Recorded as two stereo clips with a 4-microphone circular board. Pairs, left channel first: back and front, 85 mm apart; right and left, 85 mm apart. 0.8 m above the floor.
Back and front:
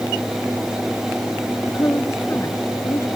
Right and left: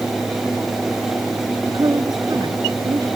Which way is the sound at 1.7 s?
125° left.